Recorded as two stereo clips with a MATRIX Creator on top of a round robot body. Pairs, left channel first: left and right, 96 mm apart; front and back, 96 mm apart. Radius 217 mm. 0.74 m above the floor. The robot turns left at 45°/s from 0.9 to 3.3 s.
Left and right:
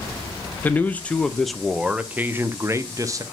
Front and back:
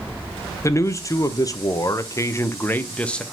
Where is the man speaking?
30° left, 0.9 m; by 3.2 s 75° right, 0.9 m.